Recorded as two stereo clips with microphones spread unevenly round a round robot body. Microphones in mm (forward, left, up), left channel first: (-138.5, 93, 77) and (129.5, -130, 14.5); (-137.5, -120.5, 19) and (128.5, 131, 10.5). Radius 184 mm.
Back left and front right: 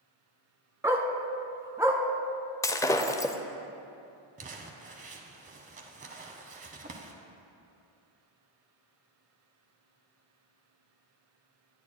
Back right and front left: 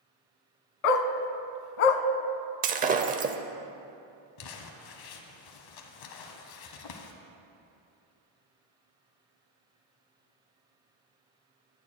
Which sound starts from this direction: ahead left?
Breaking glass, at 2.6 s.